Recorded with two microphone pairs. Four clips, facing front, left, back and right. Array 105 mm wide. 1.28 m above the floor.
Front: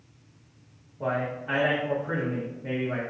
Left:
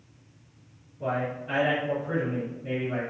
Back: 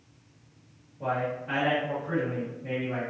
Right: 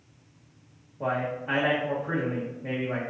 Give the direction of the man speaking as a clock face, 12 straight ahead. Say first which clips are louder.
Right 1 dB, front 1 dB; 2 o'clock.